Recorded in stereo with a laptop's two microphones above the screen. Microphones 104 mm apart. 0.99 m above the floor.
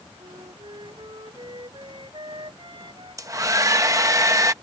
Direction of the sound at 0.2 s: 50° right (ahead or behind).